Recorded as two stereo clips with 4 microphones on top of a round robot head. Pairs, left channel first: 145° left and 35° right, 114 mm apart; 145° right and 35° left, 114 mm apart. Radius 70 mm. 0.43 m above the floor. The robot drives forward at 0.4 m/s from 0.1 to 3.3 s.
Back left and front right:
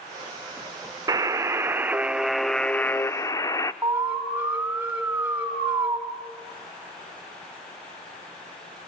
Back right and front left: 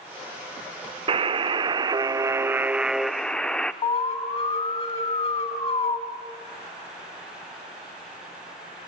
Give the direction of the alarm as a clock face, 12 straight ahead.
4 o'clock.